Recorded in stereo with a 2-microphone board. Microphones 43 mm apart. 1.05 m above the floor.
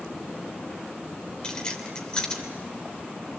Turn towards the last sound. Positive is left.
turn(degrees=20)  # may be behind; listen again after turning